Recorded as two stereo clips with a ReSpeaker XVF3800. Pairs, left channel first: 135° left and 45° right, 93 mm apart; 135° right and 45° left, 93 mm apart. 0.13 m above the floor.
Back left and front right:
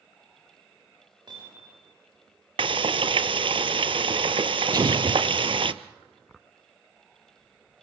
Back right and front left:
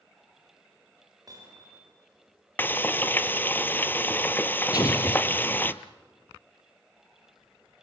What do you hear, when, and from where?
1.3 s hammering: 5° right, 9.5 m
2.6 s frying: 65° right, 0.6 m
4.7 s an explosion: 90° right, 1.0 m